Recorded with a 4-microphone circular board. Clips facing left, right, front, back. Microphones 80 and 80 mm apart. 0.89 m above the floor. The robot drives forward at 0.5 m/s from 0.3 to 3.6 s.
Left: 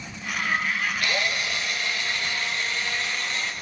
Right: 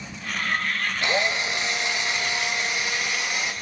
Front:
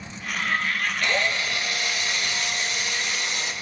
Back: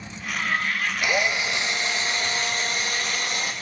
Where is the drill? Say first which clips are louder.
Right 3 dB, back 2 dB; 115° right, 1.0 m; by 3.5 s 160° right, 1.8 m.